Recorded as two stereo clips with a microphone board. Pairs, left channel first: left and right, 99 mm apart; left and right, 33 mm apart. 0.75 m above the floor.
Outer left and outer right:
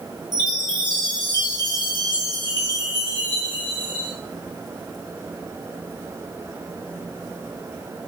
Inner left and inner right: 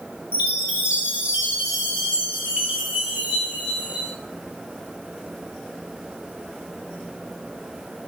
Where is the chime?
45° right (ahead or behind), 1.5 m.